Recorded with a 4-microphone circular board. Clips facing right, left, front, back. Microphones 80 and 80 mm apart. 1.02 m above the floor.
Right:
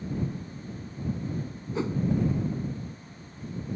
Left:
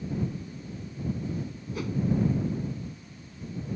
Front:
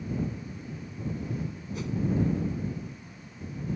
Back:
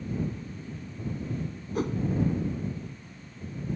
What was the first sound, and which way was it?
A whoosh, 150° right.